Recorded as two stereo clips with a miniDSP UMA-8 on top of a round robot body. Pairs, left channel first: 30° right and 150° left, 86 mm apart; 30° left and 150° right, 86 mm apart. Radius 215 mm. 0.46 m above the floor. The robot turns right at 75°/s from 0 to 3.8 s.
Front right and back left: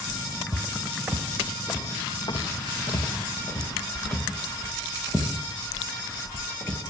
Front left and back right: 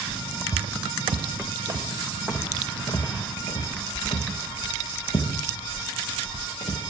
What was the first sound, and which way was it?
Footsteps, 170° right.